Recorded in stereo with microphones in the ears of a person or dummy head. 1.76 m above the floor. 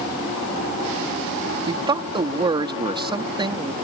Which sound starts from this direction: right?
A man speaking, at 1.7 s.